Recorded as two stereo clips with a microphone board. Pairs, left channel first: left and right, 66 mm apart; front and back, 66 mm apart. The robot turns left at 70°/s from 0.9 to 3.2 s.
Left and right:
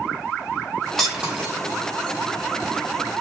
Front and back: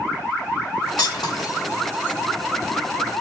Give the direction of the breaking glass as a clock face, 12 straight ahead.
12 o'clock.